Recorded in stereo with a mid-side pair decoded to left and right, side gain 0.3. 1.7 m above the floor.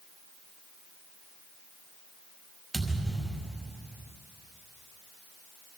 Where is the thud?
35° right, 5 m.